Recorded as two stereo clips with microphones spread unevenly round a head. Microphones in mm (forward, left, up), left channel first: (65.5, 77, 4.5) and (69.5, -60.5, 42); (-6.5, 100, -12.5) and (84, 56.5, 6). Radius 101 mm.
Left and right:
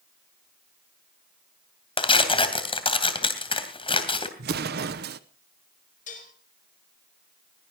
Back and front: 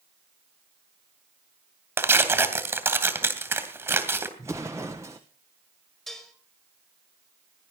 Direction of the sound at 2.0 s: 35° left.